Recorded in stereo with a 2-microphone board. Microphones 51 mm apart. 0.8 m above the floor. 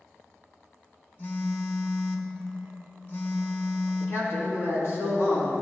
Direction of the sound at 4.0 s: 60° left (ahead or behind).